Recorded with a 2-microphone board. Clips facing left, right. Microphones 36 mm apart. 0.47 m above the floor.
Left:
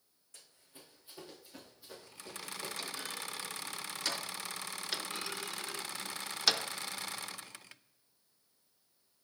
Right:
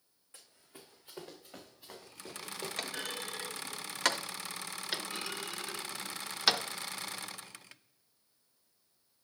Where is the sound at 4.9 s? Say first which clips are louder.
Right 2 dB; 10° right (ahead or behind), 0.5 m.